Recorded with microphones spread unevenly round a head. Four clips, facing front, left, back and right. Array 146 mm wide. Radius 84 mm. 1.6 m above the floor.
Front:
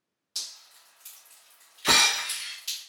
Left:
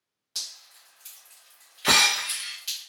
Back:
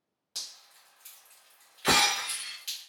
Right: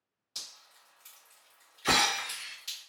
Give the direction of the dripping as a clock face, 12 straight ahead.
6 o'clock.